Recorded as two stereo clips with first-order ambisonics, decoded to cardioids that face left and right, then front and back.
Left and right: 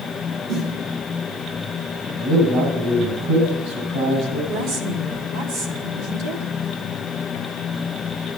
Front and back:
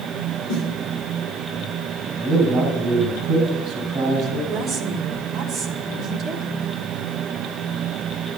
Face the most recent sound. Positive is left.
turn(degrees=-115)